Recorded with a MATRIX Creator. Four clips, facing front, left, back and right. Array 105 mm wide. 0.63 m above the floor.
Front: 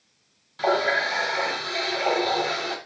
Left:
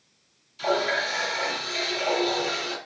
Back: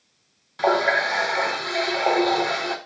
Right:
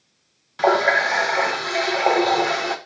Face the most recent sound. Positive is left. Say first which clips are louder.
# right 8 dB, back 2 dB
turn(degrees=-110)